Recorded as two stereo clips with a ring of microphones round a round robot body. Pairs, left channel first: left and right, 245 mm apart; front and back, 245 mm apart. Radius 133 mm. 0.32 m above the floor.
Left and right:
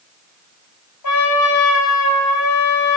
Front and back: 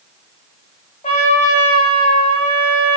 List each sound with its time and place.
1.0 s a trumpet: 65° left, 9.5 m